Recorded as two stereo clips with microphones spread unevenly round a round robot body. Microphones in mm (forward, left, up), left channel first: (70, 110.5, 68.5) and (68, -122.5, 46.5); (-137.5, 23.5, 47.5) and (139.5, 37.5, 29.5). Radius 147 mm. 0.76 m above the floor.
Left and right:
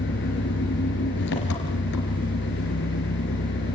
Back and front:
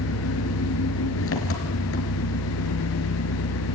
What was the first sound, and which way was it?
An engine running, 140° left.